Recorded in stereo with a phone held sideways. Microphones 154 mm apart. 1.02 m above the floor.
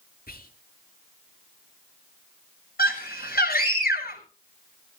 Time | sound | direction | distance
0.3 | whispering | 70° left (ahead or behind) | 2.5 m
2.8 | a scream | 80° left | 7 m